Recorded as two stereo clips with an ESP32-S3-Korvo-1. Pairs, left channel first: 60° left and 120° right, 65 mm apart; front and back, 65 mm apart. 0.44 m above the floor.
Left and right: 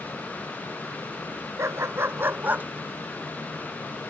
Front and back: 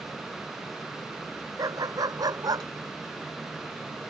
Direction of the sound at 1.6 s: 160° right.